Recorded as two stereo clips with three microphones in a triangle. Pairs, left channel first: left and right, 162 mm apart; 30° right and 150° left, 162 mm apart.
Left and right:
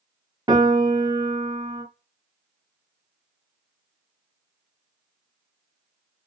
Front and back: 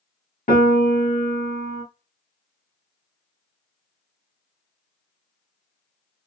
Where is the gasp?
No gasp in this recording.